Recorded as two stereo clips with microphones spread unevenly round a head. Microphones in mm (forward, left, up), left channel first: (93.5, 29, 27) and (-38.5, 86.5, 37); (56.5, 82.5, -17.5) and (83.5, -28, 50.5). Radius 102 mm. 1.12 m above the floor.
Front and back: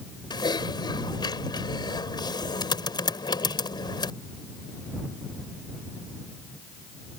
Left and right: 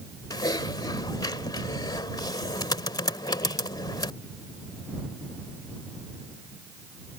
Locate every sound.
0.3 s typing on a keyboard: 40° left